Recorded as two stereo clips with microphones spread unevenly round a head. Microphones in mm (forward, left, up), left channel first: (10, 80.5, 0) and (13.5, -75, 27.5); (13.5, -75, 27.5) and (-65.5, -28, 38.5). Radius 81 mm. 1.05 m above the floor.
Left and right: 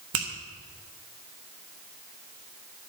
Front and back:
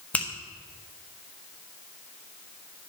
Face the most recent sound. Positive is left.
turn(degrees=-105)